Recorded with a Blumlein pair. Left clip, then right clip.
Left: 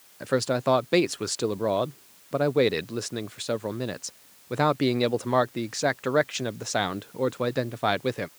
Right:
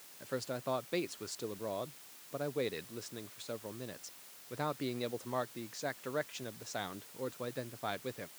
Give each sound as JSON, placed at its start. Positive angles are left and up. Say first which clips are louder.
{"t": 0.2, "sound": "a man speaking", "louder": "left 14 dB", "azimuth_deg": 35}